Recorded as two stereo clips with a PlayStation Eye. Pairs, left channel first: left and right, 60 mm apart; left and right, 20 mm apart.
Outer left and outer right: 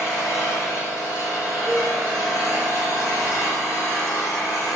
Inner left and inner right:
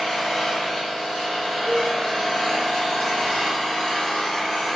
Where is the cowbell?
10° left (ahead or behind), 0.9 m.